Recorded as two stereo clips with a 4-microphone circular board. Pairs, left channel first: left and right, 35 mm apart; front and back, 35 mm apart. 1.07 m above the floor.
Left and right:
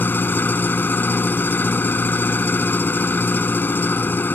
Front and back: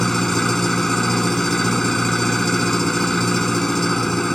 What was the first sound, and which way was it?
An engine running, 80° left.